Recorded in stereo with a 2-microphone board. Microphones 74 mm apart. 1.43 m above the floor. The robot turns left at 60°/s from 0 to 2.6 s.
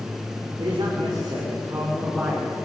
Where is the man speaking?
70° right, 5 m; by 2.7 s 170° left, 5 m.